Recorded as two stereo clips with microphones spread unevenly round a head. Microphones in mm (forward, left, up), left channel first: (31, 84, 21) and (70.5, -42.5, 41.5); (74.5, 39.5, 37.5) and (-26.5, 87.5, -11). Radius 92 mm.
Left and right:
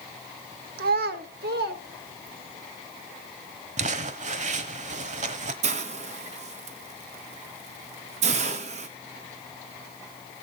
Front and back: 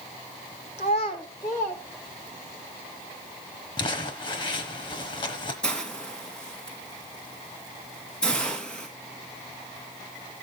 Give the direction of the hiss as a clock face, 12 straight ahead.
4 o'clock.